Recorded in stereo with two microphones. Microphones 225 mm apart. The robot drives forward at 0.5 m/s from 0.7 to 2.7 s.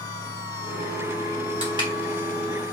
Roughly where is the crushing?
Right.